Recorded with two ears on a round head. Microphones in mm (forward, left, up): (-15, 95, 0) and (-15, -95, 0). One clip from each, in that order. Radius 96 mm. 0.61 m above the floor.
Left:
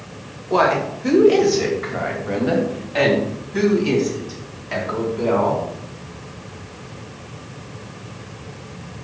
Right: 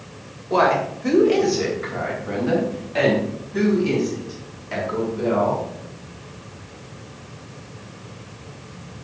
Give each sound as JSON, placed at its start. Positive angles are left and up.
{"t": 0.5, "sound": "a woman speaking", "side_deg": -5, "distance_m": 1.9}